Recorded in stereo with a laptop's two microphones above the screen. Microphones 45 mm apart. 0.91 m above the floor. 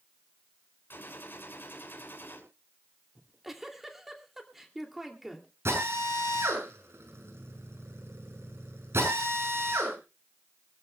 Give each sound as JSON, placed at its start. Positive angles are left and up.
{"t": 0.9, "sound": "a gunshot", "side_deg": 50, "distance_m": 6.5}
{"t": 3.1, "sound": "a giggle", "side_deg": -10, "distance_m": 2.5}
{"t": 5.7, "sound": "a drill", "side_deg": -80, "distance_m": 7.0}